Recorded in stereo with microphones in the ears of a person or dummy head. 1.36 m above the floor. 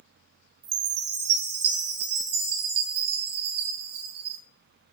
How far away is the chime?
About 0.5 m.